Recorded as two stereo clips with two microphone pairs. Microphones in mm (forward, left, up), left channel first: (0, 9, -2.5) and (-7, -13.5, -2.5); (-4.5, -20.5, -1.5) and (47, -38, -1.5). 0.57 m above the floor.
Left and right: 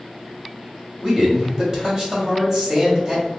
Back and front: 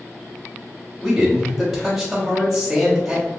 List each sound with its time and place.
1.0 s a man speaking: 100° right, 1.4 m